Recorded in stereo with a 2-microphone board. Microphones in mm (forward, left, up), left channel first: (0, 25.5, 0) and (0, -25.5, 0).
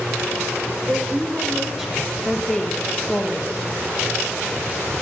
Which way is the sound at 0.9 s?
35° right (ahead or behind).